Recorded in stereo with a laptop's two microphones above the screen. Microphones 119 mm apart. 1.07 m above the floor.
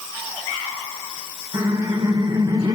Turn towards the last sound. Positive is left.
turn(degrees=-35)  # may be behind; listen again after turning